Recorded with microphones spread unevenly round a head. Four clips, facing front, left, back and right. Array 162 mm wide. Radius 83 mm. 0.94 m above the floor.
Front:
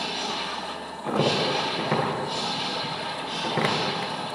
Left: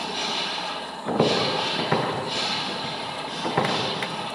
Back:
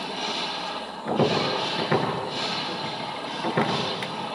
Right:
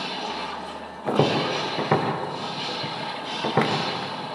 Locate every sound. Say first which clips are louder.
1.1 s footsteps: even, back 1 dB; 80° right, 8 m; by 3.7 s 90° right, 9 m